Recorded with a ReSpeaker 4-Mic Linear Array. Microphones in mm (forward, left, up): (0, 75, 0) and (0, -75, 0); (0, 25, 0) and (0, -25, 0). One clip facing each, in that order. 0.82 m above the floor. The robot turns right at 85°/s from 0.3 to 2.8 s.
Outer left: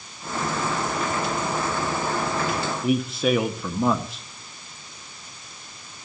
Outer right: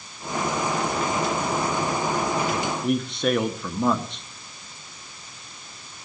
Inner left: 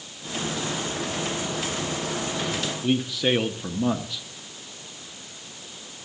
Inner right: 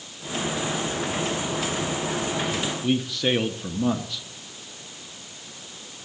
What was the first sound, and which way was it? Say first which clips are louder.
A man speaking: outer left 3 dB, inner left 1 dB; 5° left (ahead or behind).